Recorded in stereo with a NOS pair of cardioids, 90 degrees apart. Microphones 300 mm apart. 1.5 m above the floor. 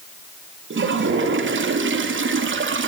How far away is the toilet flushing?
About 3.5 m.